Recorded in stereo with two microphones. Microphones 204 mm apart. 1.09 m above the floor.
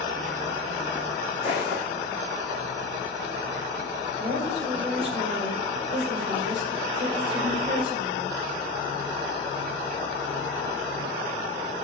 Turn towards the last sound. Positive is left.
turn(degrees=-65)  # may be behind; listen again after turning